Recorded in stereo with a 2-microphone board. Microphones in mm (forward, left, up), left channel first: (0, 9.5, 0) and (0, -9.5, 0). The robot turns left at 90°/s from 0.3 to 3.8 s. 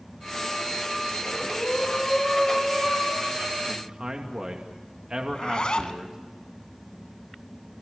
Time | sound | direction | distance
1.2 | breathing | 115° left | 3.5 m
3.7 | a man speaking | 25° right (ahead or behind) | 2.5 m
5.3 | a zipper | 45° left (ahead or behind) | 1.9 m